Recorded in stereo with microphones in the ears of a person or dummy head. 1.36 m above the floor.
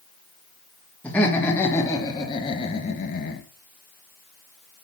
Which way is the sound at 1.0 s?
15° left (ahead or behind).